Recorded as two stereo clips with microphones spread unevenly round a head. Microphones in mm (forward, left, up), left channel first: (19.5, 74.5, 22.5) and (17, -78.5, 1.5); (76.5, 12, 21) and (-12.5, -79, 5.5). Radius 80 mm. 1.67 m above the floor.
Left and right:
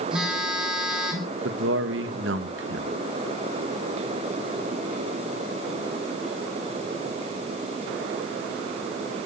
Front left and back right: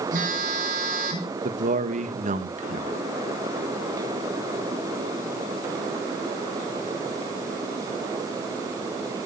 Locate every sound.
0.1 s a phone buzzing: straight behind, 5 m
1.4 s a man speaking: 110° right, 1.9 m